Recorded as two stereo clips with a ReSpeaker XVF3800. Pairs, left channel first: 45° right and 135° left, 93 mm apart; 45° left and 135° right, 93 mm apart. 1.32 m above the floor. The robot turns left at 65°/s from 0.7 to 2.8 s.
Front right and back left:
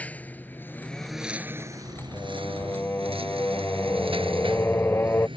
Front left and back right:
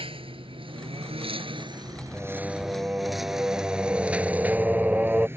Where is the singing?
35° right; by 5.3 s 80° right.